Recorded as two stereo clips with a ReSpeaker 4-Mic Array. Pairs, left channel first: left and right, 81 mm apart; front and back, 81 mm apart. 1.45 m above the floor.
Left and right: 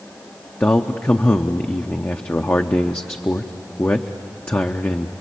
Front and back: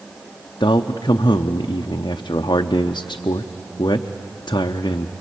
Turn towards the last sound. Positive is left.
turn(degrees=25)